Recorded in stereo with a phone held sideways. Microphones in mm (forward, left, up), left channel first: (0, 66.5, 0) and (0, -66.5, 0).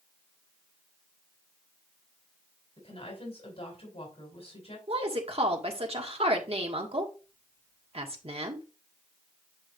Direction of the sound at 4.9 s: 50° right (ahead or behind).